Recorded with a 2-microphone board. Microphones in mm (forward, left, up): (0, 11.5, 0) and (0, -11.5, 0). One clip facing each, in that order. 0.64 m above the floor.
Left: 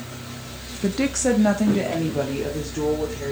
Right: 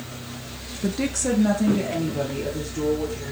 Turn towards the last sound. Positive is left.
turn(degrees=30)  # may be behind; listen again after turning